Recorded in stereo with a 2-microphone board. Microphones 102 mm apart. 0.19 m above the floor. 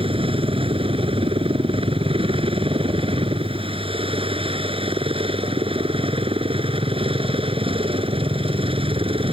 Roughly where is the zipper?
No zipper in this recording.